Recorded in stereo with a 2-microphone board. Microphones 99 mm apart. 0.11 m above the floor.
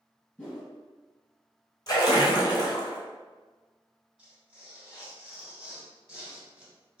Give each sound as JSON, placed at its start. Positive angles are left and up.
{"t": 0.4, "sound": "a whoosh", "side_deg": 10, "distance_m": 1.6}
{"t": 1.9, "sound": "a splash", "side_deg": 40, "distance_m": 0.8}
{"t": 4.2, "sound": "tearing paper", "side_deg": -10, "distance_m": 1.2}